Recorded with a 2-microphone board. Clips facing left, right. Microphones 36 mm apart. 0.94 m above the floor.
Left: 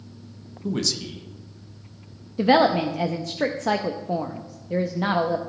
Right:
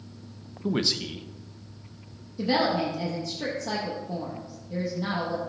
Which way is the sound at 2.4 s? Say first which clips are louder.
Left 7 dB; 55° left (ahead or behind).